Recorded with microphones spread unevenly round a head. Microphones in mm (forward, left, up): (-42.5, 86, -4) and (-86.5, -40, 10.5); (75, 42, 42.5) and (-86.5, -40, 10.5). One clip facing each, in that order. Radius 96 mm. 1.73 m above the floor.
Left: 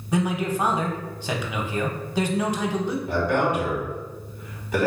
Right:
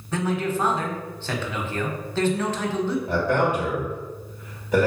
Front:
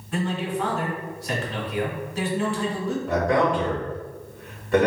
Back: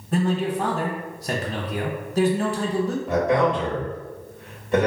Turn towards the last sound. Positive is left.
turn(degrees=-80)